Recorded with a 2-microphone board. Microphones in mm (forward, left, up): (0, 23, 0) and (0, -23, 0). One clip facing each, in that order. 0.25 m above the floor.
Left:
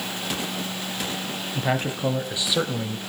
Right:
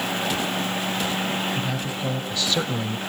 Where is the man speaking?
40° left (ahead or behind), 2 m; by 3.0 s 10° right (ahead or behind), 1.5 m.